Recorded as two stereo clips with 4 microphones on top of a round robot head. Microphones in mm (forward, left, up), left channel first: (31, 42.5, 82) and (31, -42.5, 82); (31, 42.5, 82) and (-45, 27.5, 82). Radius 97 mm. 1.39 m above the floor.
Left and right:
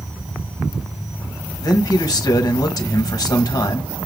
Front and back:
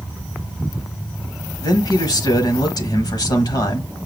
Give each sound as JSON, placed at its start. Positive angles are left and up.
{"t": 1.6, "sound": "a man speaking", "azimuth_deg": 45, "distance_m": 1.4}